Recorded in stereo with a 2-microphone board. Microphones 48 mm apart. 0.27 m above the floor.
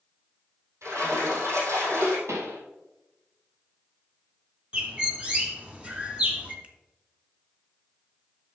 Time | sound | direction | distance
0.8 | a splash | 85° right | 4 m
2.3 | a pop | 75° right (ahead or behind) | 2 m
4.7 | a bird | 25° right (ahead or behind) | 1.2 m
6.6 | a finger snap | 25° right (ahead or behind) | 0.9 m